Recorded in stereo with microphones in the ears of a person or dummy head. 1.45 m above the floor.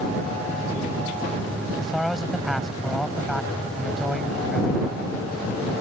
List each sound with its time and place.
1.8 s a man speaking: centre (ahead or behind)